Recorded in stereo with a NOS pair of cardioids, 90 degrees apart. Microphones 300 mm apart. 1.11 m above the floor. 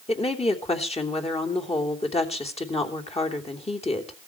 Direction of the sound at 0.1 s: 20° left.